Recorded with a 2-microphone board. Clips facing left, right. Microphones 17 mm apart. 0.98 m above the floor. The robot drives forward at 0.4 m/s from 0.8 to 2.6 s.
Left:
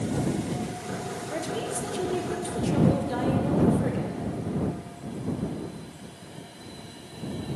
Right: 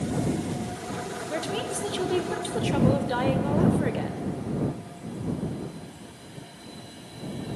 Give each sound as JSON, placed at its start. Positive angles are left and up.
{"t": 1.3, "sound": "a woman speaking", "side_deg": -40, "distance_m": 0.6}